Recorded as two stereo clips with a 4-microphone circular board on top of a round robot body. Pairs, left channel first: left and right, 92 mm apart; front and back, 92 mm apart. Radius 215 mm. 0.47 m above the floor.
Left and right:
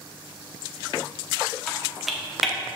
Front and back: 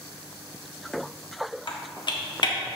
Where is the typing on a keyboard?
Straight ahead, 1.8 m.